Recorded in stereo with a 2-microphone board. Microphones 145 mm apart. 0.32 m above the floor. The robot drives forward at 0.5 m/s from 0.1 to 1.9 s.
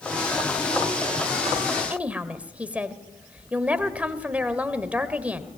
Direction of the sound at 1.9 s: 10° right (ahead or behind).